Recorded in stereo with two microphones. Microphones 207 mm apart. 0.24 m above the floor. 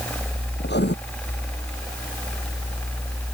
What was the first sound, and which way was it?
Writing, 55° left (ahead or behind).